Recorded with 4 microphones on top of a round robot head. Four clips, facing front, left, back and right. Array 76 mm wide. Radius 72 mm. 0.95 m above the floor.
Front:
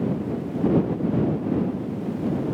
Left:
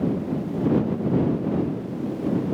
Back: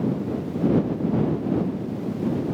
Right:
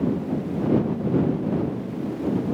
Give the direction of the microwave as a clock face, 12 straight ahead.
I don't hear a microwave.